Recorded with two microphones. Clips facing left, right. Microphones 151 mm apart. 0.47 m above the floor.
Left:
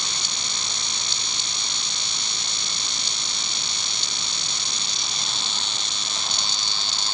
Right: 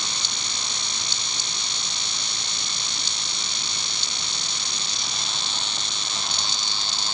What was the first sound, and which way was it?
Only background noise.